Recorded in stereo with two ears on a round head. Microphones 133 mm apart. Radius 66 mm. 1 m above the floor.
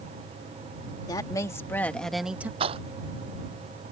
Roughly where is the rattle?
Right.